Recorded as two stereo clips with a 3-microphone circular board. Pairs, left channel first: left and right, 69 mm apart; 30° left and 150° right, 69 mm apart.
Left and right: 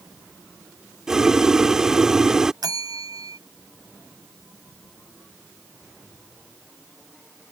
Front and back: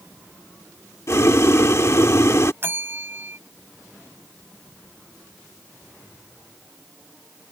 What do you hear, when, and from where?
1.1 s boiling: 10° right
2.6 s a bell: 95° right